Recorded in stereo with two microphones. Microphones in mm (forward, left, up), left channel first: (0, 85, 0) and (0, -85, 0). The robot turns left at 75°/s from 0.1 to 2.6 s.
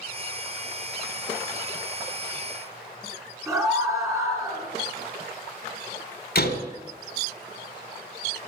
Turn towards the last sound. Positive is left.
turn(degrees=65)  # may be behind; listen again after turning